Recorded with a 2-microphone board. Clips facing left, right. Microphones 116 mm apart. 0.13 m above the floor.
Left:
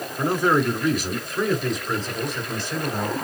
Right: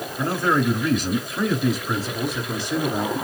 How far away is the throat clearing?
I don't hear throat clearing.